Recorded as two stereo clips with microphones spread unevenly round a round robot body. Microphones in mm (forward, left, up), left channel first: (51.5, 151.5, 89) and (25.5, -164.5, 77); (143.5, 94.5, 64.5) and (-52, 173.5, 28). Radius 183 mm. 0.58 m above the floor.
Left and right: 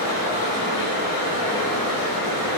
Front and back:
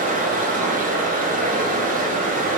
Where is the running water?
105° left, 0.8 m.